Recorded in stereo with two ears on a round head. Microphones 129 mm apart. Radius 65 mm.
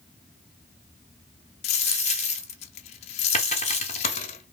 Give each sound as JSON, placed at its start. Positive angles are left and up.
{"t": 1.6, "sound": "a dropped coin", "side_deg": 50, "distance_m": 0.6}